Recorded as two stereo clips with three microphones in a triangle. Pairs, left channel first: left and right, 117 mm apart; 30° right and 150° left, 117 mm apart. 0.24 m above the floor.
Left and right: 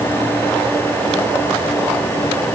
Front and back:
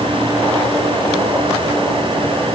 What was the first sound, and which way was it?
Only background noise.